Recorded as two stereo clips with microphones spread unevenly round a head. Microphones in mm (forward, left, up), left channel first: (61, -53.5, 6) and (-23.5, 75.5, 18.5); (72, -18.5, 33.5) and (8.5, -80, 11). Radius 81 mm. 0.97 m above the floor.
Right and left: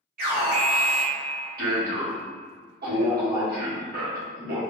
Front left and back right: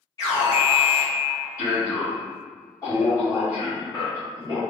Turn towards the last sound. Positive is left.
turn(degrees=110)